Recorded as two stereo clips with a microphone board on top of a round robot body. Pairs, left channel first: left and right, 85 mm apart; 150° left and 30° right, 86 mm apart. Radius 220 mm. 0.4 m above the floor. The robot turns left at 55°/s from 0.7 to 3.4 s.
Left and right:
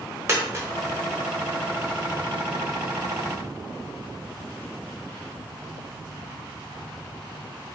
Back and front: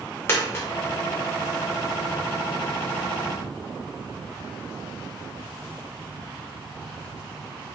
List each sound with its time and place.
0.3 s a dropped coin: 150° right, 0.7 m